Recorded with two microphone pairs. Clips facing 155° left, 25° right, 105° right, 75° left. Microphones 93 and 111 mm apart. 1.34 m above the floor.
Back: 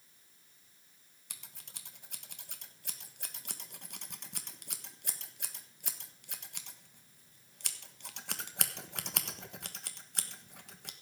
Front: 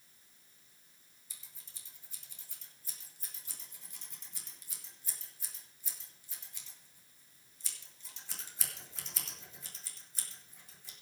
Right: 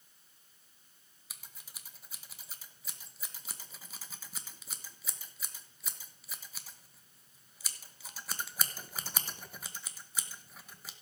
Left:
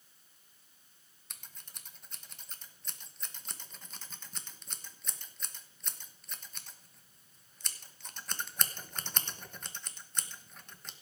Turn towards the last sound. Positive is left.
turn(degrees=170)